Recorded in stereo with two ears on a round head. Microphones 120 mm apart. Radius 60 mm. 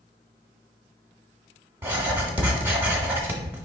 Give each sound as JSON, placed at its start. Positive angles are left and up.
{"t": 1.8, "sound": "writing", "side_deg": -15, "distance_m": 0.9}